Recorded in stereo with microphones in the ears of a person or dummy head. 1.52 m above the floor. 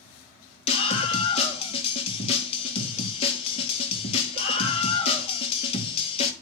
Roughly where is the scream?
Left.